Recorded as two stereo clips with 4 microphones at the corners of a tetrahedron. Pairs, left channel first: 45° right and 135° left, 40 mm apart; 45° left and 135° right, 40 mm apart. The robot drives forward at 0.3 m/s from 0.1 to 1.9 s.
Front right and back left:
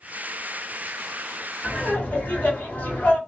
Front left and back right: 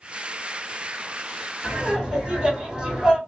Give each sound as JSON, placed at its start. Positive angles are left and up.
{"t": 1.6, "sound": "laughter", "azimuth_deg": -65, "distance_m": 2.0}